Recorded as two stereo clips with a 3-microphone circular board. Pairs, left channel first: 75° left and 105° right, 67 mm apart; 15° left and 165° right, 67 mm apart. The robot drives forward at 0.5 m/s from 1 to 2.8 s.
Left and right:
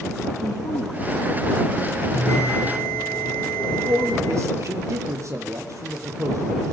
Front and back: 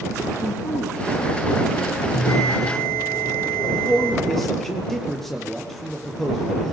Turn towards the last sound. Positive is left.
turn(degrees=-70)